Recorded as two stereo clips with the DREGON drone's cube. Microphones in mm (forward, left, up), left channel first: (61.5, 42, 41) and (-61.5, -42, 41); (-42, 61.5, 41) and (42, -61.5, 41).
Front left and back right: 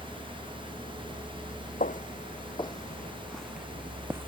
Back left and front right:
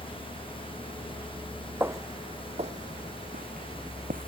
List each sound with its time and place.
0.0 s a vehicle: 15° right; by 4.3 s 10° left
1.8 s footsteps: 20° left; by 4.3 s 75° right